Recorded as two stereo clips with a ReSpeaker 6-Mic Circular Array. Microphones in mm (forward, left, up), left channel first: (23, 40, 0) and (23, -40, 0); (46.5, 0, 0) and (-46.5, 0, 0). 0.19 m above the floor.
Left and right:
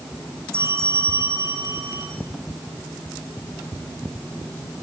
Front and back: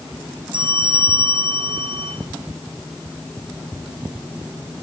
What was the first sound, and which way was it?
A bell, 150° right.